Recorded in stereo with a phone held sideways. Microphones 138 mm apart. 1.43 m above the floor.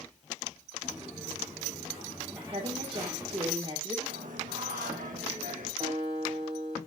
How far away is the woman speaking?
About 1.7 m.